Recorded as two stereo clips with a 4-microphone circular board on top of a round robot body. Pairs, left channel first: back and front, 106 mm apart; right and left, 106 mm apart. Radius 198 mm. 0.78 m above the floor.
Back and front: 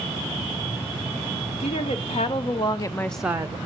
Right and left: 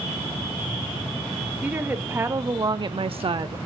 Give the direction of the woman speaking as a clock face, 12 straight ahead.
6 o'clock.